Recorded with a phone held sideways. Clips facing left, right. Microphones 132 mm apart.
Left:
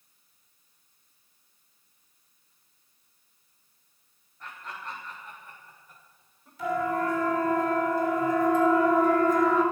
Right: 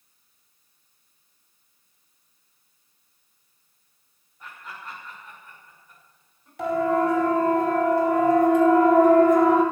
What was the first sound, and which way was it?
Laughter, 5° right (ahead or behind).